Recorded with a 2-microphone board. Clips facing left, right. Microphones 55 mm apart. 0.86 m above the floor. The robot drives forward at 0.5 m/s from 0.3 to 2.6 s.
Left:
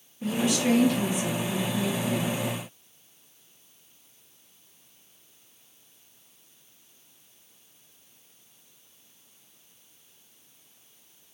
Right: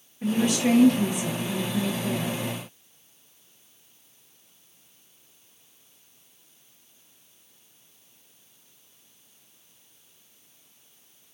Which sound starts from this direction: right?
A woman speaking, at 0.2 s.